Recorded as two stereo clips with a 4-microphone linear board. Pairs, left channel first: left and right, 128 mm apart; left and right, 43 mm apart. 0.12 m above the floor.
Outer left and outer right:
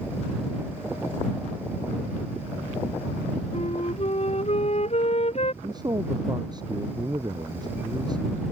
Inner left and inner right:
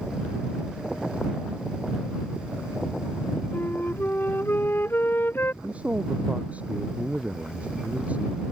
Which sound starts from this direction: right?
A man speaking, at 5.6 s.